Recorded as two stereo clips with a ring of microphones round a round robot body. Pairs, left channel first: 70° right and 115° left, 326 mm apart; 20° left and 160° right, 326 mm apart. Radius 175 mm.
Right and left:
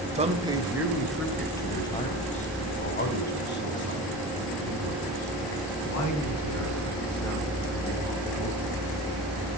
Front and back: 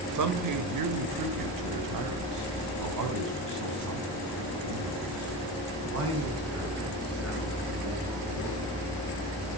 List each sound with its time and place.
0.1 s a man speaking: straight behind, 1.9 m; by 8.9 s 105° right, 7 m